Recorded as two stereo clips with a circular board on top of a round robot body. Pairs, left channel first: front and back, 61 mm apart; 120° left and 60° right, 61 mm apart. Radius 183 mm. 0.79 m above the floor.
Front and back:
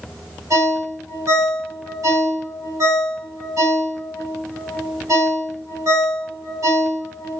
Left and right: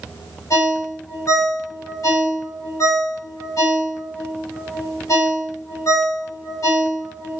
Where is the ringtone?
160° left, 4 m.